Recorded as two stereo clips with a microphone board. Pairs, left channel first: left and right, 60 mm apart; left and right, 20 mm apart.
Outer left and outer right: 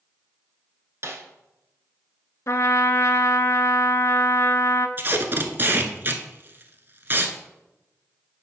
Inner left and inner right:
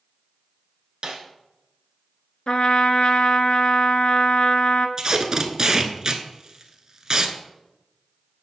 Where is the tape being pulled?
40° right (ahead or behind), 0.8 m.